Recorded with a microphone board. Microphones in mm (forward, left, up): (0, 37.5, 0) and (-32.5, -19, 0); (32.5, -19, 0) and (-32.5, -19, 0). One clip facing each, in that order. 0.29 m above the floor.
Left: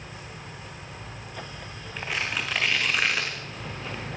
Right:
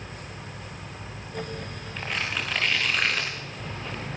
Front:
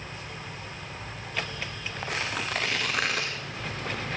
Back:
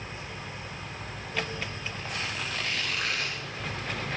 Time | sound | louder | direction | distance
2.0 | tearing paper | even, front 5 dB | 25° right | 6.5 m